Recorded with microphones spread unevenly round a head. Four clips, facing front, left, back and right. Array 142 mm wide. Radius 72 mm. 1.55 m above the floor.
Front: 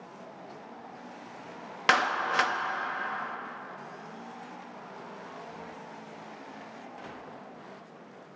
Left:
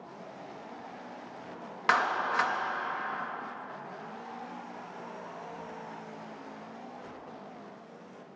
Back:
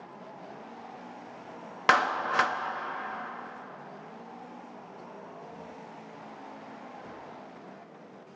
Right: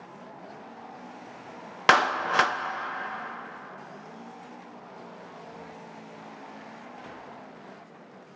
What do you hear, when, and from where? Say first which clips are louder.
1.9 s a clap: right 5 dB, back 1 dB; 80° right, 0.7 m